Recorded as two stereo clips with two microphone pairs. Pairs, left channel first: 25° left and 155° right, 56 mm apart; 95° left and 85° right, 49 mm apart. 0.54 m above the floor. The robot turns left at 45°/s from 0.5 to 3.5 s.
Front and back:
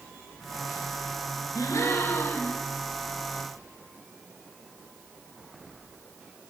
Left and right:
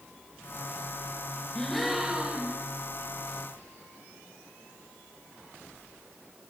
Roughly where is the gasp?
Ahead.